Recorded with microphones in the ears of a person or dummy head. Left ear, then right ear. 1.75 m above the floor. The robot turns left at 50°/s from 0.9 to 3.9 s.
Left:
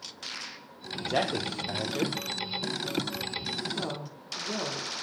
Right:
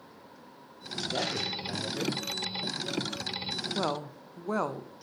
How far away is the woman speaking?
About 0.6 m.